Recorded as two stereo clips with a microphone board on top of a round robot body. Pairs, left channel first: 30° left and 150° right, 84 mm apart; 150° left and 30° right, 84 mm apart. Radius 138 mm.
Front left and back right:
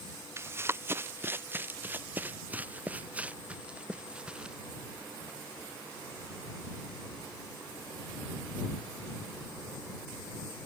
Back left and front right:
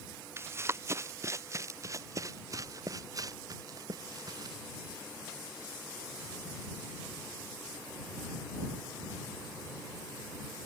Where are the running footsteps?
90° right; by 4.6 s 70° right.